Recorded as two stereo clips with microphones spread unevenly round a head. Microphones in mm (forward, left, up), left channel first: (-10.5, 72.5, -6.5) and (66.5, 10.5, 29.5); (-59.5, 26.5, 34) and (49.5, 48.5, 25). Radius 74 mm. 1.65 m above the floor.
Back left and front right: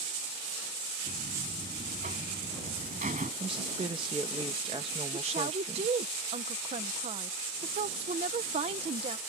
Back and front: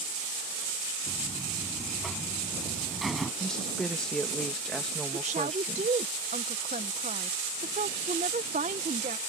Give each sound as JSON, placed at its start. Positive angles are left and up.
{"t": 1.1, "sound": "a buzzer", "azimuth_deg": -80}
{"t": 3.4, "sound": "a woman speaking", "azimuth_deg": -85}
{"t": 5.1, "sound": "a woman speaking", "azimuth_deg": -30}